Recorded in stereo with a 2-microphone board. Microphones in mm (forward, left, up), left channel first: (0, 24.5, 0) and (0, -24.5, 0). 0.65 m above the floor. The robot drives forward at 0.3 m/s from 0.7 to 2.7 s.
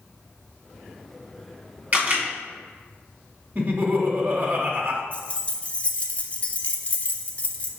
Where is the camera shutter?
35° right (ahead or behind), 1.4 m.